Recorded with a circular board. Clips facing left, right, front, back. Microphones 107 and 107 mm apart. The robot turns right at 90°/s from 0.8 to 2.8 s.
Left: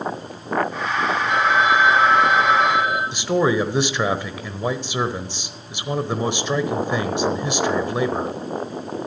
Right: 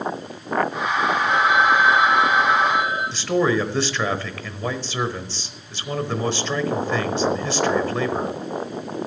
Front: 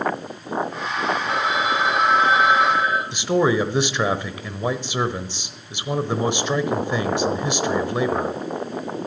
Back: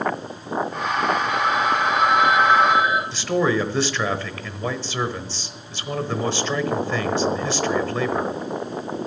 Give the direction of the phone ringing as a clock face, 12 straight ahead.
1 o'clock.